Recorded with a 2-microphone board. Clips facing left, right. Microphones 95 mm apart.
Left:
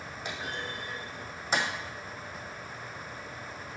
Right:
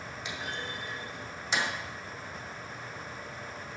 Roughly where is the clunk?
Left.